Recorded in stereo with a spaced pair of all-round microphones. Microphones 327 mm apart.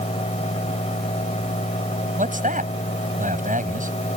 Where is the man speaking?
25° right (ahead or behind).